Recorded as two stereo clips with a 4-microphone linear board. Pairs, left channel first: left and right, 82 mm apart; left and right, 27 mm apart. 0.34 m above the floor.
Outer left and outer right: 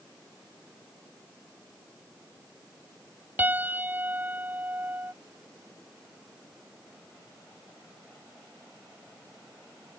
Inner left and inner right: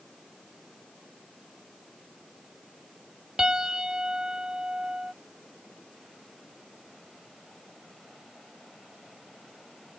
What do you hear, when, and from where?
3.4 s a piano: 20° right (ahead or behind)